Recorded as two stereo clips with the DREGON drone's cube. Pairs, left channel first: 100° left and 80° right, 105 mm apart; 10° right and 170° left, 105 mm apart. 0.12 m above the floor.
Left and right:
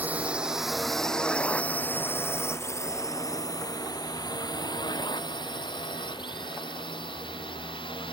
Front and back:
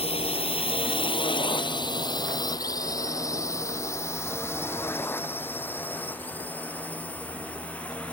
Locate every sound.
0.0 s a drone: 5° right; by 8.1 s 65° left